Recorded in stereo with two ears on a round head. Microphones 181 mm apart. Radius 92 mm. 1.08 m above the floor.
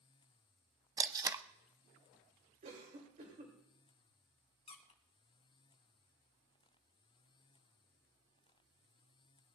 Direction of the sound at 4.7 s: 30° left (ahead or behind).